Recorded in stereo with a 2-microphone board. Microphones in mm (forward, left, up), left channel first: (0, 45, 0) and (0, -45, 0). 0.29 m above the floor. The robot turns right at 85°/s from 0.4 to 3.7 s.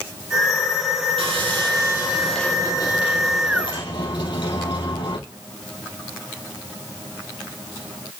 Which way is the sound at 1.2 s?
95° right.